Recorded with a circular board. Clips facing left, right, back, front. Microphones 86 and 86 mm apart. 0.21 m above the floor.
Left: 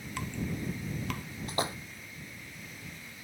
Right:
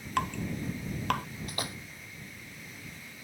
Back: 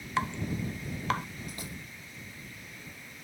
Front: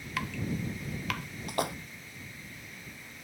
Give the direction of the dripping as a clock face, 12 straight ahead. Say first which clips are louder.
Right 5 dB, back 3 dB; 4 o'clock.